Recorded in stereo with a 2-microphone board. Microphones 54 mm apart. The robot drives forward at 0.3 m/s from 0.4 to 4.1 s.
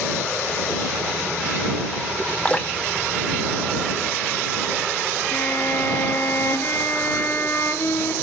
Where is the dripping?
25° left (ahead or behind), 2.0 m; by 4.2 s 20° left (ahead or behind), 2.5 m.